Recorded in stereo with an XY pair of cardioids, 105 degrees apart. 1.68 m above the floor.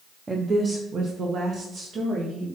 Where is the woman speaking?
25° right, 1.0 m; by 2.5 s 75° right, 3 m.